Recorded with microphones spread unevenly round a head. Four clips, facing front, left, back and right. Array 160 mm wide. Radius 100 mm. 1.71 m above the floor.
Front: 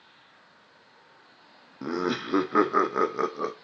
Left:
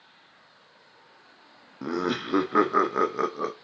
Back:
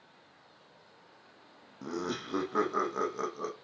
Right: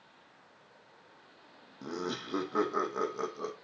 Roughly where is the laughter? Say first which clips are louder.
Left 9 dB, front 7 dB; ahead left.